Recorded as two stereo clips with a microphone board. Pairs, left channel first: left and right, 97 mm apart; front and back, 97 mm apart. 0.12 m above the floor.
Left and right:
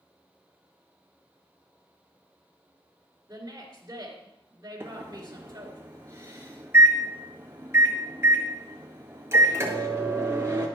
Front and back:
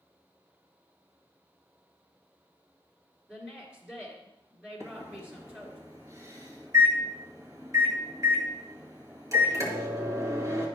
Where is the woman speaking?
105° right, 2 m.